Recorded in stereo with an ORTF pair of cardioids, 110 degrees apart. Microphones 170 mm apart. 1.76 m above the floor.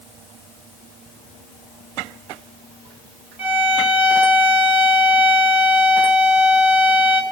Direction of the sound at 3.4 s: 5° right.